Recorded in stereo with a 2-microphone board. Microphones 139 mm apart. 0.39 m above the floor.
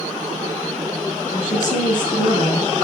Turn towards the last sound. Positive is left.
turn(degrees=65)  # may be behind; listen again after turning